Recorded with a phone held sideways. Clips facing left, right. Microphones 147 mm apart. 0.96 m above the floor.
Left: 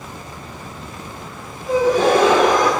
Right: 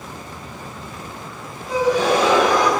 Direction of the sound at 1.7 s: 50° left (ahead or behind).